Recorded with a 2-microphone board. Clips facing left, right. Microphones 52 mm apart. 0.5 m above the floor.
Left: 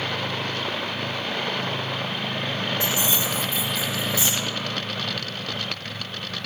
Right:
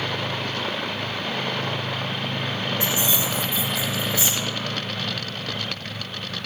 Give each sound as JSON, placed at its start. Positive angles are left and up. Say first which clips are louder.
{"t": 2.8, "sound": "keys jangling", "louder": "even", "side_deg": 40, "distance_m": 1.6}